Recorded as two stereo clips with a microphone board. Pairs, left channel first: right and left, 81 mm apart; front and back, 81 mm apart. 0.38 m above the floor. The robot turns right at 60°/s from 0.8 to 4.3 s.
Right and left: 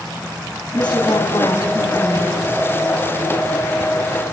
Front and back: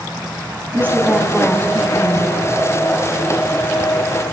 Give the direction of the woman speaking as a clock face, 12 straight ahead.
4 o'clock.